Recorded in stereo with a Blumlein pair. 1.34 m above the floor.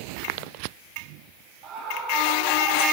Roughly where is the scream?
Ahead right.